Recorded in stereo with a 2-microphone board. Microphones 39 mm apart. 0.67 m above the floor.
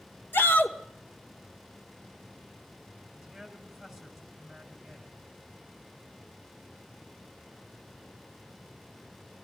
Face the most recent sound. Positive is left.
turn(degrees=5)  # may be behind; listen again after turning